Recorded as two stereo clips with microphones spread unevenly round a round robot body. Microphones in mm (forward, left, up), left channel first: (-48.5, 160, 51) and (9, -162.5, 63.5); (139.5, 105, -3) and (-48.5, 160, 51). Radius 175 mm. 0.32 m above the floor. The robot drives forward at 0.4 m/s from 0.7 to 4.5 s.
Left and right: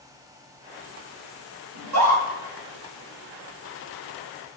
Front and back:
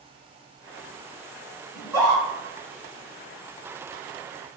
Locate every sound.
1.8 s a scream: 110° right, 2 m; by 2.2 s 115° right, 2.5 m